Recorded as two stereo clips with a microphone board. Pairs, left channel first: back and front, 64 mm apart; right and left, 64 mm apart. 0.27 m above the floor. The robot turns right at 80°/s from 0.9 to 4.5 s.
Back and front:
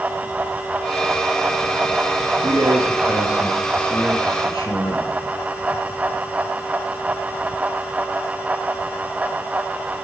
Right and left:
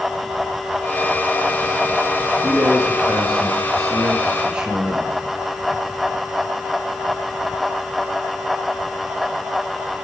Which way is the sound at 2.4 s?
Straight ahead.